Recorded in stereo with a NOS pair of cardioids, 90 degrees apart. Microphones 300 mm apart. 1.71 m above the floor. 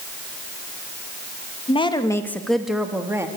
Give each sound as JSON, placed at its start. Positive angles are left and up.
{"t": 1.7, "sound": "a woman speaking", "azimuth_deg": 20, "distance_m": 2.0}